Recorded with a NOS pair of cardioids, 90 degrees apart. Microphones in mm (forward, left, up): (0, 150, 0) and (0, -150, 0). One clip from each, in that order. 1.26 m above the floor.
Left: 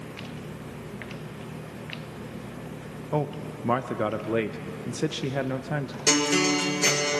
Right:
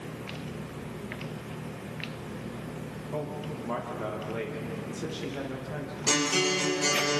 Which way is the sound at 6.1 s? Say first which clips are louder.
Left 3 dB; 40° left.